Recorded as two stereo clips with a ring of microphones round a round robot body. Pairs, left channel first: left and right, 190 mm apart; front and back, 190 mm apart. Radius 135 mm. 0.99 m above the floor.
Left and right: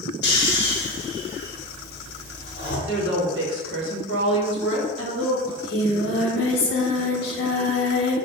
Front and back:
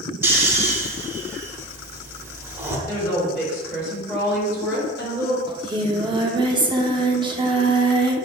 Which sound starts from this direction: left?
Snoring, at 0.2 s.